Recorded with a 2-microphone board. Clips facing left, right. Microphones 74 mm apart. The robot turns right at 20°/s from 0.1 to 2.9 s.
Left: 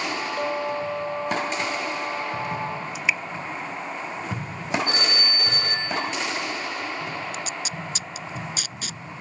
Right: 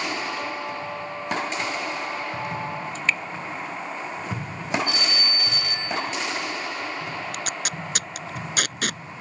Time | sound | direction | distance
0.4 | a clink | 135° left | ?
3.0 | dripping | 10° left (ahead or behind) | ?
4.9 | a phone ringing | 45° left (ahead or behind) | ?
7.3 | tape being pulled | 65° right (ahead or behind) | ?